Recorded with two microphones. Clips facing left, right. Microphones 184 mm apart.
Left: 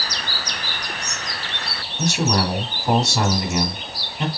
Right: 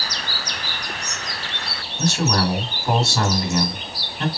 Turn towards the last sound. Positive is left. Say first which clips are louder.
# even
turn(degrees=15)  # may be behind; listen again after turning